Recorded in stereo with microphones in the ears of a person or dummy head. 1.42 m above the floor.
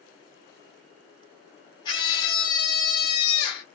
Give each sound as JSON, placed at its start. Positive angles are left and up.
{"t": 1.9, "sound": "a scream", "side_deg": 25, "distance_m": 1.2}